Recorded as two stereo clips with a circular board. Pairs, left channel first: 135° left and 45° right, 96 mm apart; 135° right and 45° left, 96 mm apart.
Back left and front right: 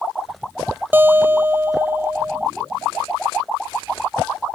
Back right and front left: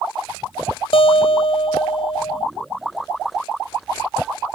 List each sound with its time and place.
0.9 s a guitar: 115° right